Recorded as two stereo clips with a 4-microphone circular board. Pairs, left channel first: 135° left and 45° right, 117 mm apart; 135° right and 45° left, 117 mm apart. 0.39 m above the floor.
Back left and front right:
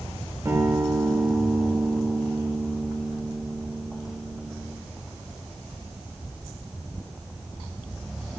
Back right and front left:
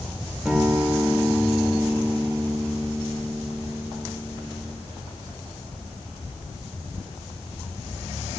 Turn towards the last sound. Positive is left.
turn(degrees=-30)